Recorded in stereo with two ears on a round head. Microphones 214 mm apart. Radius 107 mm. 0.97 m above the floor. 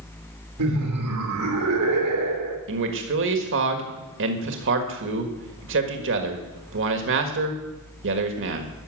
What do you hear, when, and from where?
0.6 s laughter: 75° right (ahead or behind), 2.5 m
2.7 s a man speaking: 55° right (ahead or behind), 1.6 m